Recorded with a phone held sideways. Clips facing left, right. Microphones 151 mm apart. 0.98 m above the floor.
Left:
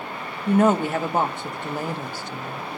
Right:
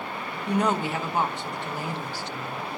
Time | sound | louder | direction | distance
0.5 | a woman speaking | left 6 dB | 50° left (ahead or behind) | 1.6 m